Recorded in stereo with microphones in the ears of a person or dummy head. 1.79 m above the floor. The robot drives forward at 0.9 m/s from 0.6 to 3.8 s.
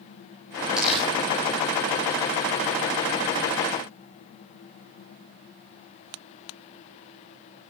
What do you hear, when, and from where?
0.8 s crumpling: 5° right (ahead or behind), 7 m